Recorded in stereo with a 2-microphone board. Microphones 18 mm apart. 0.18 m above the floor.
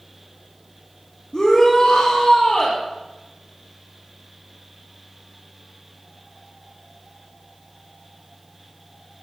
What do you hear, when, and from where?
1.3 s a shout: 40° left (ahead or behind), 4 m